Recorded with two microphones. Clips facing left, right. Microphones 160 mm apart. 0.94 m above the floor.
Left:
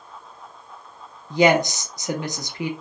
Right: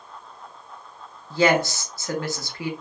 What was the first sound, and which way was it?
A woman speaking, 20° left (ahead or behind).